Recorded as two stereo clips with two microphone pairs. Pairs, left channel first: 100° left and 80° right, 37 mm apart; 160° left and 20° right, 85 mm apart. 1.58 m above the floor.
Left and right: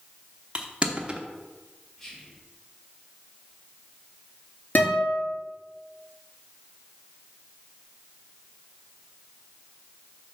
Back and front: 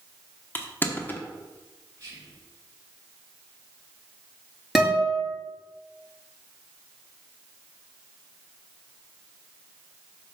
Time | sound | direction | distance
0.6 | crushing | 135° right | 0.9 m
2.0 | whispering | 30° left | 2.5 m
4.8 | a guitar | 65° left | 3 m